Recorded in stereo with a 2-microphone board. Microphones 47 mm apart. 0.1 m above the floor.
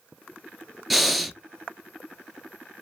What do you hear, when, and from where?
0.9 s breathing: 5° right (ahead or behind), 0.5 m